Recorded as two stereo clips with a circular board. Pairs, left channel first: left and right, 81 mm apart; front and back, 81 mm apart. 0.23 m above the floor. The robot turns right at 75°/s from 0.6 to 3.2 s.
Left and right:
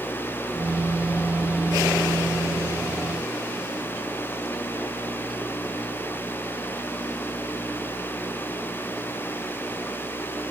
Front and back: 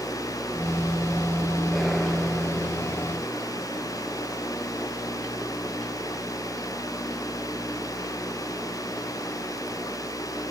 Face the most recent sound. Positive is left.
No sound to turn to.